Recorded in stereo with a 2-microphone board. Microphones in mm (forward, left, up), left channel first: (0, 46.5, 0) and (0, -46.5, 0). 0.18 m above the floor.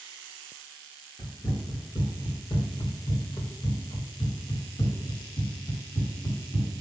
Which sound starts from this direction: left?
Running footsteps, at 1.2 s.